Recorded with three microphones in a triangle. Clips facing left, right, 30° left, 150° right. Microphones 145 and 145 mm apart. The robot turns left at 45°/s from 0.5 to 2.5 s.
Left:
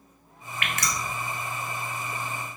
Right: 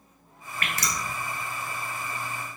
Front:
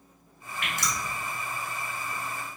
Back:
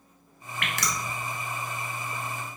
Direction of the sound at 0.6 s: 140° right.